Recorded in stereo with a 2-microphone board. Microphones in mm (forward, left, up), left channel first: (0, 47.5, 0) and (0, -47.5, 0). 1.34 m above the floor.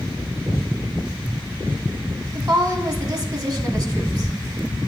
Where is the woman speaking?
40° right (ahead or behind), 1.0 m.